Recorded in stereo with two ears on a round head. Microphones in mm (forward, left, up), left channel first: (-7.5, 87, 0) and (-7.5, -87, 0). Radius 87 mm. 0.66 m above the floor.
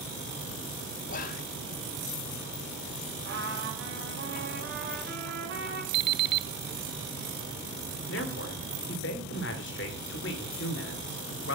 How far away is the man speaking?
About 2.5 m.